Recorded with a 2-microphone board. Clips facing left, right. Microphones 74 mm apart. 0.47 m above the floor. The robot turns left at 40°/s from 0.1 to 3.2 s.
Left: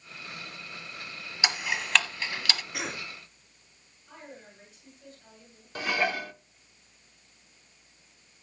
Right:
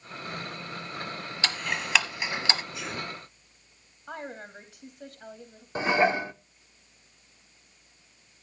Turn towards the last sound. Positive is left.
turn(degrees=-25)  # may be behind; listen again after turning